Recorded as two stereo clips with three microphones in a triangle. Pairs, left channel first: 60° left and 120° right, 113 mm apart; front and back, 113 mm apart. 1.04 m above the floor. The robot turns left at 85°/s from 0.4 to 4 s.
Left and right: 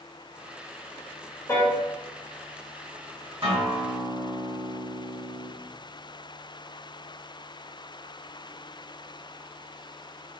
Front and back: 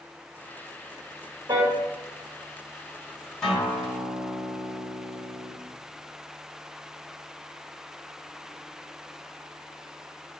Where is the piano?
125° left, 1.2 m; by 1.8 s 100° left, 1.2 m.